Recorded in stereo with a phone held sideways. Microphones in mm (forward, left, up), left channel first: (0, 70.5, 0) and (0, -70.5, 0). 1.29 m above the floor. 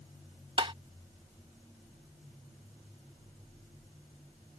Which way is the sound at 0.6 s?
40° right (ahead or behind).